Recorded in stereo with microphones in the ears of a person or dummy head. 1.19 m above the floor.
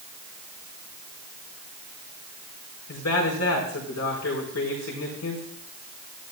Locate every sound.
2.9 s a man speaking: 80° left, 4.5 m